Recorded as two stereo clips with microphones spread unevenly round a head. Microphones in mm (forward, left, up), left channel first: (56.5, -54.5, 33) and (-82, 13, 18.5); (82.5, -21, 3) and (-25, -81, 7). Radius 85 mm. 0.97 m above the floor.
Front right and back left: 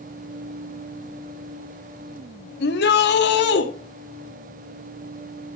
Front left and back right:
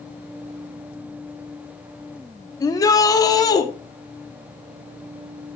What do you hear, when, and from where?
2.6 s a shout: 30° right, 2.5 m